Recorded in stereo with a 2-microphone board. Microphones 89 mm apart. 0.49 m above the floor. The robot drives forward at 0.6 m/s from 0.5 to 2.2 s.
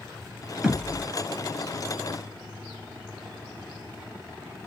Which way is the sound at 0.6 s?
5° right (ahead or behind).